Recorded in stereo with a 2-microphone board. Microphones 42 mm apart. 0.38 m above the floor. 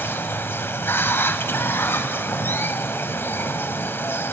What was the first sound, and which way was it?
Running water, 55° left (ahead or behind).